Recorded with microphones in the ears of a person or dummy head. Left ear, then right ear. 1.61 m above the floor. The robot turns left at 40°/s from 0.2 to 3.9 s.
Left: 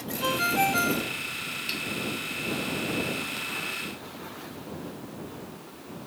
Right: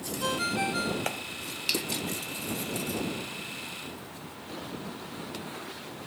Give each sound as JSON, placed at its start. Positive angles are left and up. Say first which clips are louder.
{"t": 0.2, "sound": "a ringtone", "louder": "left 5 dB", "azimuth_deg": 170}
{"t": 1.7, "sound": "a finger snap", "louder": "right 5 dB", "side_deg": -20}